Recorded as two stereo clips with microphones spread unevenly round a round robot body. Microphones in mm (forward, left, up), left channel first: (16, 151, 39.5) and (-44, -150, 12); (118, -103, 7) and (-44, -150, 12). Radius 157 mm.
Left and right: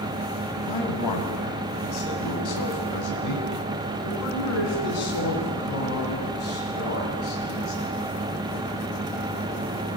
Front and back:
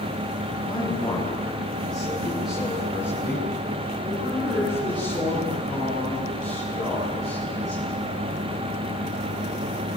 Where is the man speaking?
95° left, 6 m; by 8.1 s 130° left, 14 m.